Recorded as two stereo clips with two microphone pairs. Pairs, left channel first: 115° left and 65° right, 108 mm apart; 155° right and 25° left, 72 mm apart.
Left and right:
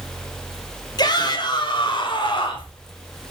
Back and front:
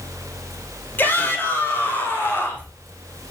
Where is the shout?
150° left, 1.9 m.